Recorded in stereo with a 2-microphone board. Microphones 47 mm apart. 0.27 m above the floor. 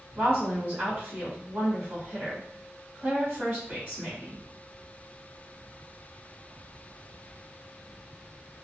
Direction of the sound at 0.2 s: 25° right (ahead or behind).